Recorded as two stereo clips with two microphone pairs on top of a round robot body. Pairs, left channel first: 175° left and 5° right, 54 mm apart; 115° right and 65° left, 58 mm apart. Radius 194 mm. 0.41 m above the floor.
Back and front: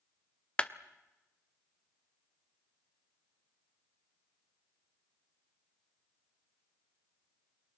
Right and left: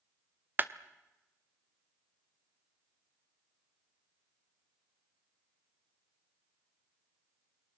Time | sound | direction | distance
0.6 | a clap | 100° left | 1.3 m